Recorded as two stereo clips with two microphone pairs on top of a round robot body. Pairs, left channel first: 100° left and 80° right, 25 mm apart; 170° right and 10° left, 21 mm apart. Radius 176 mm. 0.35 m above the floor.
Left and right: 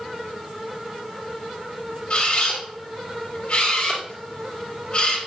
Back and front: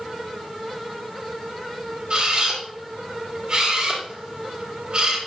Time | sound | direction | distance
2.1 | a camera shutter | 50° left | 3 m